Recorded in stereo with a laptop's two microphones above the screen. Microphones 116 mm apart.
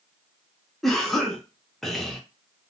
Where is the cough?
Centre (ahead or behind), 0.6 m.